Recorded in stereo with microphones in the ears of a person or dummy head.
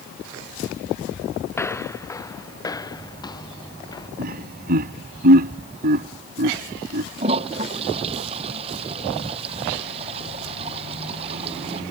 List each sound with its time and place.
1.5 s footsteps: 10° left (ahead or behind); by 4.1 s 20° left (ahead or behind)
4.2 s laughter: 55° right (ahead or behind)
7.2 s a toilet flushing: 35° right (ahead or behind)